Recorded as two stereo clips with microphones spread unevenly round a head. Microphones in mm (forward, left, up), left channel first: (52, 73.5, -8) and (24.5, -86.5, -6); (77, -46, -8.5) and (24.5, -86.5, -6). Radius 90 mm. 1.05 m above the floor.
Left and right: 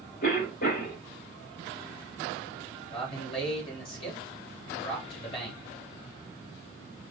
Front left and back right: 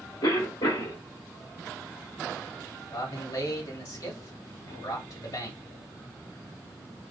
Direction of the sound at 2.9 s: 25° left.